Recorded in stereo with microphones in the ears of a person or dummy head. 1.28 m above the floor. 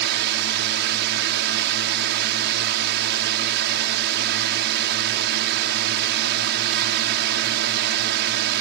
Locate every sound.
0.0 s a drone: 55° right (ahead or behind)